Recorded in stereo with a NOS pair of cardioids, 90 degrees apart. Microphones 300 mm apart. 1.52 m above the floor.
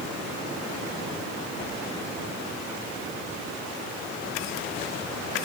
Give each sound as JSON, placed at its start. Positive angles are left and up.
{"t": 1.6, "sound": "a whoosh", "azimuth_deg": 35, "distance_m": 2.0}